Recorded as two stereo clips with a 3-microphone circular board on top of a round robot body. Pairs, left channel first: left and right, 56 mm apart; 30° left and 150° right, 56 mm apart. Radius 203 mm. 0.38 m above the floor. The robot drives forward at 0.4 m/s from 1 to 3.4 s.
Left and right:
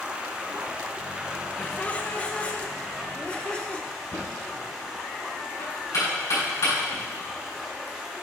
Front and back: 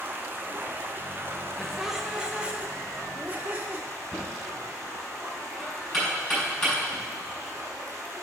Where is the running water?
150° right, 1.2 m; by 8.2 s 170° right, 1.8 m.